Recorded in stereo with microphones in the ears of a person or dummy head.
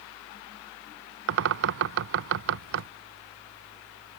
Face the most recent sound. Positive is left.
turn(degrees=-70)  # may be behind; listen again after turning